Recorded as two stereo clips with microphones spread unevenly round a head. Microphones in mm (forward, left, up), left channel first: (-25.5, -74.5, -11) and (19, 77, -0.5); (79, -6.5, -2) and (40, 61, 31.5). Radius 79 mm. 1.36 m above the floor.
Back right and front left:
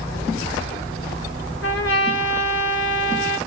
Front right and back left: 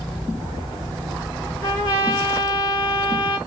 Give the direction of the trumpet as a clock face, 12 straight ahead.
3 o'clock.